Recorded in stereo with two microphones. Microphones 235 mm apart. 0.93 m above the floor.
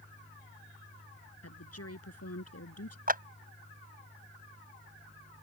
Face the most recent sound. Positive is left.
turn(degrees=-40)  # may be behind; listen again after turning